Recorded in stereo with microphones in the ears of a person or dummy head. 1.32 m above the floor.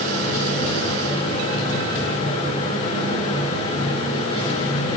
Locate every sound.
0.0 s a fan: 30° left (ahead or behind), 3 m